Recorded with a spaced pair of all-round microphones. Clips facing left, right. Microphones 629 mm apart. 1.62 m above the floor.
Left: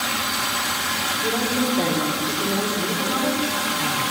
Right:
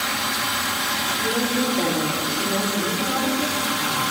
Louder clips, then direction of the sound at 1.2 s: Even; centre (ahead or behind).